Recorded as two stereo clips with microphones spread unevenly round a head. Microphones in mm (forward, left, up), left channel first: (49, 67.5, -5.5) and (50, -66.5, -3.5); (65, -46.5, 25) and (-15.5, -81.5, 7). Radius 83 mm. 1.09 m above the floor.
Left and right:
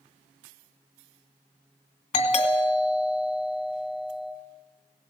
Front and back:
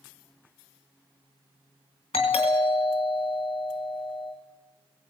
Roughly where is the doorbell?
Ahead left.